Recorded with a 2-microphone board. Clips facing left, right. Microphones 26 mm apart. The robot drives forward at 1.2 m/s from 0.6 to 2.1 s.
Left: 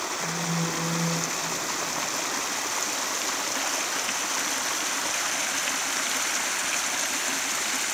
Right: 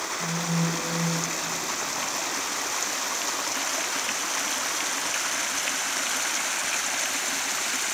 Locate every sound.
0.2 s a phone buzzing: 55° right (ahead or behind), 9 m